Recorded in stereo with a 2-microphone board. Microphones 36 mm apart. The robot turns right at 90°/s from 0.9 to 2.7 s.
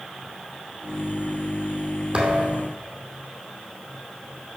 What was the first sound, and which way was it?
A thud, 145° right.